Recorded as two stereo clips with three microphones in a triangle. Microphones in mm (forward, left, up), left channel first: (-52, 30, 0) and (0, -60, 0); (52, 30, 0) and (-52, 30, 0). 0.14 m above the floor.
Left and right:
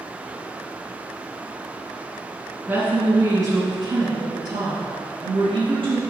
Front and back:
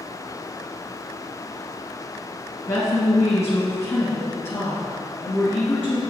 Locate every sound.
2.7 s a woman speaking: 5° right, 1.7 m; by 6.0 s 65° right, 3 m